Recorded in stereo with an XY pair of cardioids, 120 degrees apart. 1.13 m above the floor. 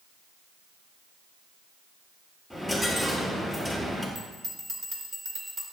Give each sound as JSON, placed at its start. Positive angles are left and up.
{"t": 2.5, "sound": "a dropped coin", "azimuth_deg": -5, "distance_m": 5.5}
{"t": 4.2, "sound": "a bell", "azimuth_deg": -30, "distance_m": 4.0}